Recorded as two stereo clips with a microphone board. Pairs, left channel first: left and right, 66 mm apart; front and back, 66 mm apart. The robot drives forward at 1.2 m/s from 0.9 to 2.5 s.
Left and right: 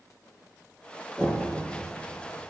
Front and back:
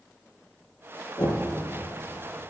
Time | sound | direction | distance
1.2 | knocking | 20° left | 4.5 m